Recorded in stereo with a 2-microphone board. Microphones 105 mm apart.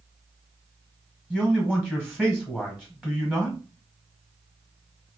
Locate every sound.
1.3 s a man speaking: 15° right (ahead or behind), 1.5 m